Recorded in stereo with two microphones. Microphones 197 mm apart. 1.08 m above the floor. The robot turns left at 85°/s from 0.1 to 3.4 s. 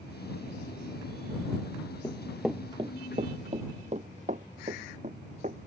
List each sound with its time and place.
2.0 s running footsteps: 15° left (ahead or behind); by 5.6 s 40° right (ahead or behind)